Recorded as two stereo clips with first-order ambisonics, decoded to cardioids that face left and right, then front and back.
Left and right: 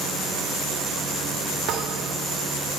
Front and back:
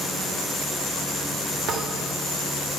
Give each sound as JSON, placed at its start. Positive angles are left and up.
{"t": 1.7, "sound": "a thud", "azimuth_deg": -135, "distance_m": 1.7}